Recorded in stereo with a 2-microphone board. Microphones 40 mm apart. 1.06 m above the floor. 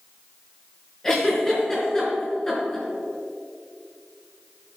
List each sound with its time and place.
1.0 s a giggle: 15° left (ahead or behind), 4 m